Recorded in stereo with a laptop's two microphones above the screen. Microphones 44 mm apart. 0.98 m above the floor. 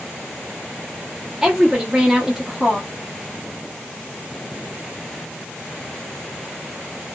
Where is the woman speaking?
10° right (ahead or behind), 0.6 m.